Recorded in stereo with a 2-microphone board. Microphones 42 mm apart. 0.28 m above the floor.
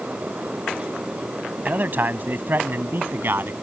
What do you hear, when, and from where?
1.6 s a man speaking: 45° right (ahead or behind); by 3.5 s 55° right (ahead or behind)